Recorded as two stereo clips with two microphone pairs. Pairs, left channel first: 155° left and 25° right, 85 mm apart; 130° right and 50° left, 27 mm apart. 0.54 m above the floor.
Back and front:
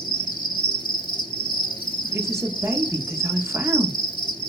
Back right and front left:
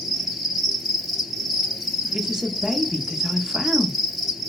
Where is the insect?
135° left, 1.0 m.